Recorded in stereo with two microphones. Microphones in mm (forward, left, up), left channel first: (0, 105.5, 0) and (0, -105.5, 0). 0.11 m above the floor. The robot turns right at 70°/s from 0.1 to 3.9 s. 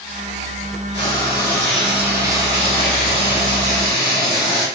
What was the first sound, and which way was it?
Frying, 25° left (ahead or behind).